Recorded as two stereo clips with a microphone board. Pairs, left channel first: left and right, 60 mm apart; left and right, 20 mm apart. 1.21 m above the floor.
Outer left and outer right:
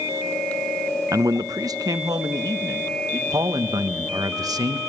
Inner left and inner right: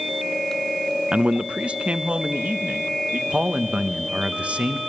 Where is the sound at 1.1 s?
55° right (ahead or behind), 0.6 m; by 3.2 s 75° right (ahead or behind), 2 m.